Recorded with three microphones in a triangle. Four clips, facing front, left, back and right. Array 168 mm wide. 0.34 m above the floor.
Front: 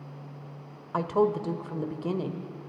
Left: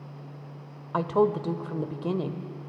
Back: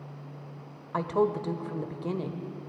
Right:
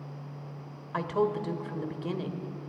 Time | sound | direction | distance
0.9 | a woman speaking | 75° left | 1.0 m